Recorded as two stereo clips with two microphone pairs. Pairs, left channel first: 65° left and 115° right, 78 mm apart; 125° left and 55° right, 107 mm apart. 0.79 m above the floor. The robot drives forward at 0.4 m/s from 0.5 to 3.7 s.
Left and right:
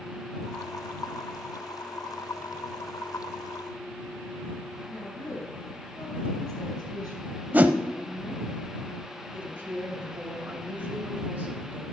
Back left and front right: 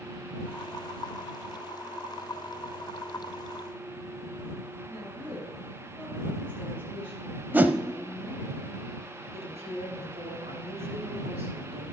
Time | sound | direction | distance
4.9 | a woman speaking | 45° left | 5 m
7.5 | a whoosh | 95° right | 0.6 m
9.3 | a woman speaking | 50° right | 3 m